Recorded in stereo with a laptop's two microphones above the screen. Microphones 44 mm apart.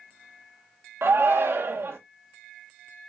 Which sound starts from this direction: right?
A shout, at 1.0 s.